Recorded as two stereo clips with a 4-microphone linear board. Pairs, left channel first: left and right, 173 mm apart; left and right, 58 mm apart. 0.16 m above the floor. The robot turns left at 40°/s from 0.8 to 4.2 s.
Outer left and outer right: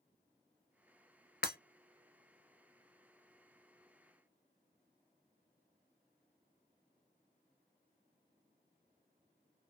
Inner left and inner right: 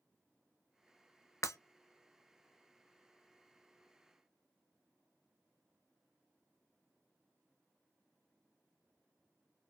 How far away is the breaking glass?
About 0.7 m.